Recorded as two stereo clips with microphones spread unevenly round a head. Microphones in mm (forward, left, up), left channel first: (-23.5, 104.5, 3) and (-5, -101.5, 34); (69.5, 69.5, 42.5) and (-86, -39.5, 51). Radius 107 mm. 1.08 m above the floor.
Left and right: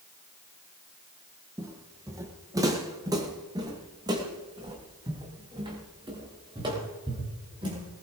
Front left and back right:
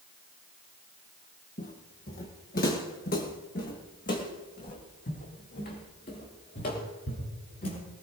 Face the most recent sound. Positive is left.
turn(degrees=-15)